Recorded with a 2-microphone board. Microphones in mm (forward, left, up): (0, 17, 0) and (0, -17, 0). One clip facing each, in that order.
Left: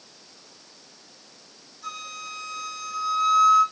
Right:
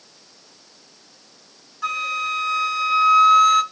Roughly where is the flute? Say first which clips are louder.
Right 12 dB; right.